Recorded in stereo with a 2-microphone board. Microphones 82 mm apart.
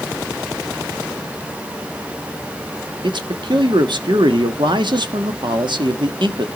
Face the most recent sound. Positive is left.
turn(degrees=-65)  # may be behind; listen again after turning